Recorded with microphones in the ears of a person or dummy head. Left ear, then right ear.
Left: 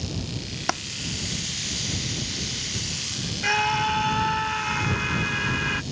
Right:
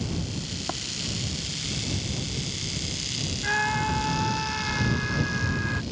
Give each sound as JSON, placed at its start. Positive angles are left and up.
{"t": 0.7, "sound": "a dropped coin", "side_deg": 60}
{"t": 3.4, "sound": "a scream", "side_deg": 70}